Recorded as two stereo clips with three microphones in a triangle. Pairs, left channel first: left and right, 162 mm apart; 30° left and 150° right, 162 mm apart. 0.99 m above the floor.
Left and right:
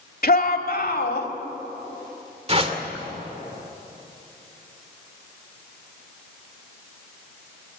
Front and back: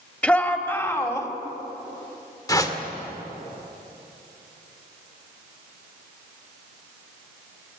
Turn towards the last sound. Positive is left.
turn(degrees=-40)